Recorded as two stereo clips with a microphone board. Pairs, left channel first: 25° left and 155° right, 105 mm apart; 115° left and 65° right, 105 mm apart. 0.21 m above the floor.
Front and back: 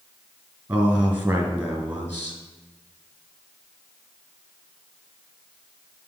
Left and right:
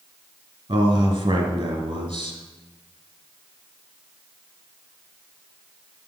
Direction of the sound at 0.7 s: 85° right.